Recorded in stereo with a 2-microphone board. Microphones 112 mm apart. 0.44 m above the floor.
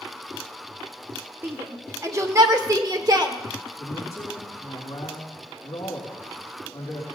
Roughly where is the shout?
Centre.